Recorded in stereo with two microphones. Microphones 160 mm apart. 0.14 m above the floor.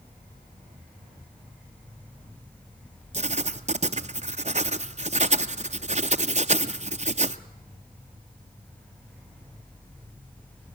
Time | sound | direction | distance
3.1 | writing | 45° right (ahead or behind) | 0.6 m